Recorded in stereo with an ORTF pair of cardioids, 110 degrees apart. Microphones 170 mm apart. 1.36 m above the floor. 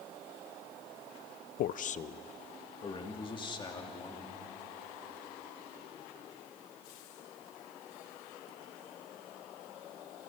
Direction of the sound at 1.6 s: 65° left.